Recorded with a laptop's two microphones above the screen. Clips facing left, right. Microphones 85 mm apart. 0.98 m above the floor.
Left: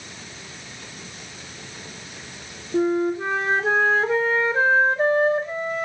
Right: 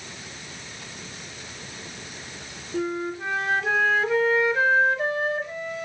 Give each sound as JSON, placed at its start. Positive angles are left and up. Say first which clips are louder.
{"t": 2.7, "sound": "a flute", "louder": "left 7 dB", "side_deg": 35, "distance_m": 1.7}